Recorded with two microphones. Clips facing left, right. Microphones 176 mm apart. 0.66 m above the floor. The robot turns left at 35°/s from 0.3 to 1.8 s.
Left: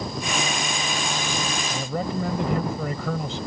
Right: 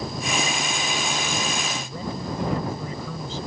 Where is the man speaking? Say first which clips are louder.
Left 4 dB; 75° left (ahead or behind).